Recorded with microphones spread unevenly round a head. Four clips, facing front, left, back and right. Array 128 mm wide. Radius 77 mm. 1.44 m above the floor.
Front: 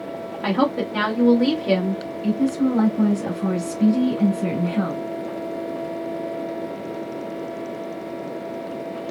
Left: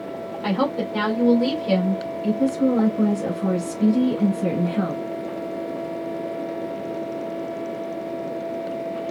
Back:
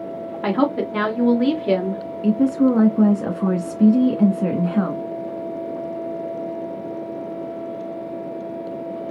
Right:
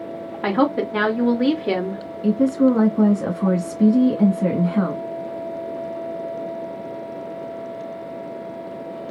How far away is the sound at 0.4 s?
About 2.5 m.